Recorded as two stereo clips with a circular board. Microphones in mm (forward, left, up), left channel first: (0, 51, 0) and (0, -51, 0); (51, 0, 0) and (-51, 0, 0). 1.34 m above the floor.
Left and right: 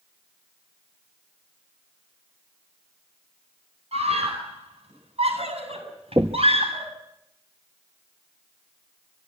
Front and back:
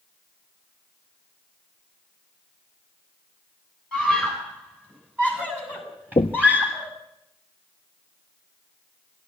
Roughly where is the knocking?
Ahead right.